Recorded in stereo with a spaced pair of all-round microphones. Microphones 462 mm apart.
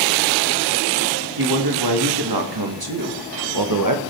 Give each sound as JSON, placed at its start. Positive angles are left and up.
{"t": 1.4, "sound": "a man speaking", "side_deg": -55, "distance_m": 2.5}